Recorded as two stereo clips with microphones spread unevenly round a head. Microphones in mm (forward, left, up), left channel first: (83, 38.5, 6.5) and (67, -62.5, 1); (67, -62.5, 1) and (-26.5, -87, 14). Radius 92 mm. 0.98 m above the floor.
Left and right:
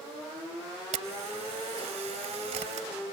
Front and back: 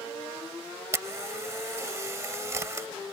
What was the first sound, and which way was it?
A camera shutter, 110° right.